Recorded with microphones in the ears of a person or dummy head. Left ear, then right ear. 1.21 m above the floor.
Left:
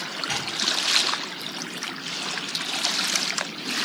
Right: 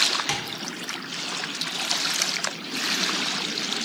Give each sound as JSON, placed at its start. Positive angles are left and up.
{"t": 0.3, "sound": "tapping", "side_deg": -50, "distance_m": 0.6}